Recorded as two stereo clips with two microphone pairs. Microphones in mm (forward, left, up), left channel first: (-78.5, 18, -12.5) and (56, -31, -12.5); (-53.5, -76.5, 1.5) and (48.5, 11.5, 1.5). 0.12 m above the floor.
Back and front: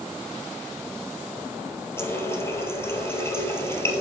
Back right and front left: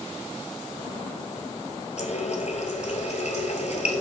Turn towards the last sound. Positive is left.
turn(degrees=-130)